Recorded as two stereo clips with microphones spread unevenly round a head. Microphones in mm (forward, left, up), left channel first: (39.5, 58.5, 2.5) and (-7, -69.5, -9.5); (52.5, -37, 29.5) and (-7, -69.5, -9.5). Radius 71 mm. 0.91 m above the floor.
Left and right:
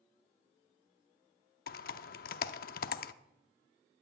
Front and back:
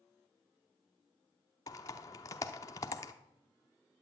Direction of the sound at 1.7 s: 70° left.